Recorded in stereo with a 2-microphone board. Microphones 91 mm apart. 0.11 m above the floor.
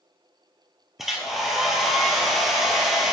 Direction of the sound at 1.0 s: Centre (ahead or behind).